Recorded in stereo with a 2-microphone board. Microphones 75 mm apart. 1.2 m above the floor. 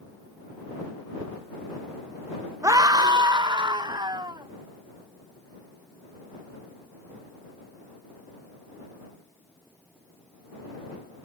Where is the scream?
45° right (ahead or behind); by 4.5 s 75° right (ahead or behind).